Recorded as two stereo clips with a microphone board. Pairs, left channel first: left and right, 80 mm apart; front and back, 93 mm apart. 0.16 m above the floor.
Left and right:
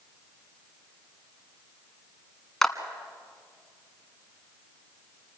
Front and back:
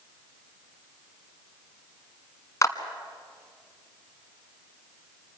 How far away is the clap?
About 1.2 m.